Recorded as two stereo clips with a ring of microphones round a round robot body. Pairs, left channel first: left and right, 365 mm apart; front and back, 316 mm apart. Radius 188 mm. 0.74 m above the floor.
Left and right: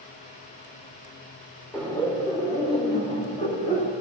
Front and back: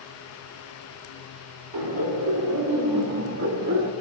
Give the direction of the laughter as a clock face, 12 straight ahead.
6 o'clock.